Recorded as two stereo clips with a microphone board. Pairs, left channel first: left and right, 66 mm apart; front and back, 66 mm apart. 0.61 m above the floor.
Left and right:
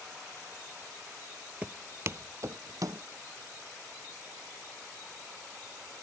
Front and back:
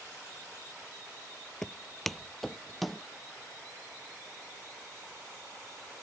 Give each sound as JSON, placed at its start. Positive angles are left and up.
{"t": 1.6, "sound": "footsteps", "azimuth_deg": -70}